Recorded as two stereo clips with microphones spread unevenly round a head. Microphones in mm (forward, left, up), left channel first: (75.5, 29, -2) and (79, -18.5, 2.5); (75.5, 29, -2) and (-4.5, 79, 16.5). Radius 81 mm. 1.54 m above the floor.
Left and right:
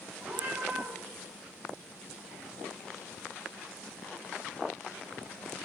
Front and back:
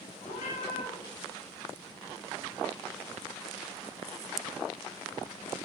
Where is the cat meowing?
40° right, 4 m.